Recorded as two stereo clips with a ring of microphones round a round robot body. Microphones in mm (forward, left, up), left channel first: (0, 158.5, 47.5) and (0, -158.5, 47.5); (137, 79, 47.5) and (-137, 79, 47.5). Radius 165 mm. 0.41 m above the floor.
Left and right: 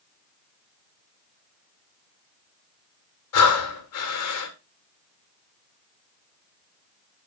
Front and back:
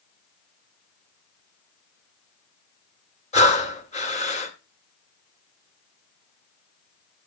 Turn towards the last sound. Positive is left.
turn(degrees=60)